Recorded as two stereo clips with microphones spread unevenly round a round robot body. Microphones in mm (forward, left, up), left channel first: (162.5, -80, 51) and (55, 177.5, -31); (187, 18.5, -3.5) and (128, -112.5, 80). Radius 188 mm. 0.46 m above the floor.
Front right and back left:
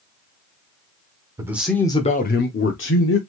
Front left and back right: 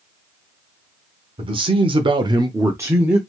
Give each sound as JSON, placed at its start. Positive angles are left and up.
{"t": 1.4, "sound": "a man speaking", "azimuth_deg": 160, "distance_m": 1.0}